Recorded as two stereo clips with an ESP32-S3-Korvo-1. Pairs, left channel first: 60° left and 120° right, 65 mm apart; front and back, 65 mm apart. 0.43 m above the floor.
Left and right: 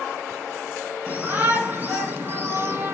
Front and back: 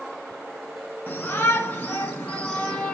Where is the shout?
60° right, 4 m; by 3.0 s 75° right, 3.5 m.